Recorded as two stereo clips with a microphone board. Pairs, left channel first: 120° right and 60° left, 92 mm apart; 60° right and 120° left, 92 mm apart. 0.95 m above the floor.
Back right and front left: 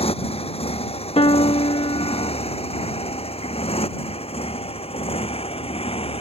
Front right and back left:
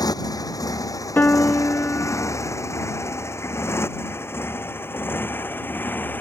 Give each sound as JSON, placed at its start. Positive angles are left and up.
{"t": 0.0, "sound": "a motorcycle", "azimuth_deg": -110}
{"t": 1.2, "sound": "a piano", "azimuth_deg": -130}